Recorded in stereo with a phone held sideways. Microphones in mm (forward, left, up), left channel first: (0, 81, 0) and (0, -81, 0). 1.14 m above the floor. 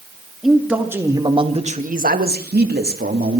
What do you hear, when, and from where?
0.4 s a man speaking: centre (ahead or behind), 3 m; by 3.4 s 65° right (ahead or behind), 3 m